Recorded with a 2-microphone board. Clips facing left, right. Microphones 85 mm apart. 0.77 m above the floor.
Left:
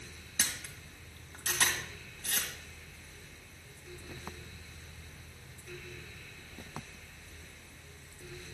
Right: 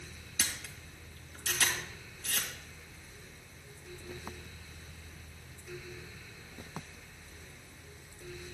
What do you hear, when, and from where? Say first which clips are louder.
0.4 s a camera shutter: left 1 dB; 50° left (ahead or behind), 2 m